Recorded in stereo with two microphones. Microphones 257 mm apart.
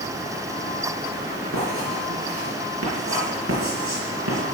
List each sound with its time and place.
1.5 s writing: 55° right (ahead or behind), 6.5 m